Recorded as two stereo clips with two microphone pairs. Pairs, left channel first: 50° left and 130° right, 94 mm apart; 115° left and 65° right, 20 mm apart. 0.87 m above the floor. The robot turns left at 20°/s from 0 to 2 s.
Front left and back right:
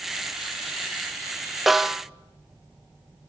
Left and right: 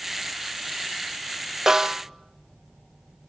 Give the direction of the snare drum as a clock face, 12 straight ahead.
2 o'clock.